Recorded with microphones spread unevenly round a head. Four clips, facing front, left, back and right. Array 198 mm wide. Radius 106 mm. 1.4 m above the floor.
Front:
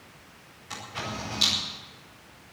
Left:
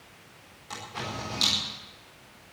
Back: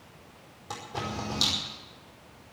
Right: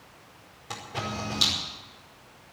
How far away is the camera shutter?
About 5 m.